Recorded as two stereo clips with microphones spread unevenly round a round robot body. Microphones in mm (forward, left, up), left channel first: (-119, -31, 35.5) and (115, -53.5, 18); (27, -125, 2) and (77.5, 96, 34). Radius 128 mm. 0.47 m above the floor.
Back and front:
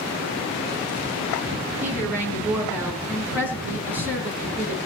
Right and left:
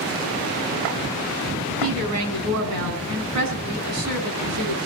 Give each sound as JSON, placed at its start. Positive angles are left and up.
{"t": 1.8, "sound": "a woman speaking", "azimuth_deg": 75, "distance_m": 5.5}